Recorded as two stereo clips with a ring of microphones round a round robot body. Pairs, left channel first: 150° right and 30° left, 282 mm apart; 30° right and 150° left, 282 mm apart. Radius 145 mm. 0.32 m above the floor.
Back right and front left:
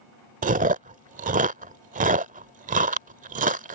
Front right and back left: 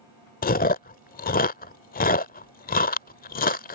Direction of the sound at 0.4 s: 5° right.